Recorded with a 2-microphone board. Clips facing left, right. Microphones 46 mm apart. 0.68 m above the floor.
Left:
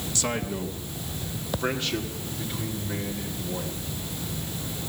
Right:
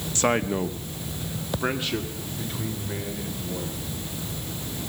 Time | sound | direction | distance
0.1 | a man speaking | 40° right (ahead or behind) | 1.4 m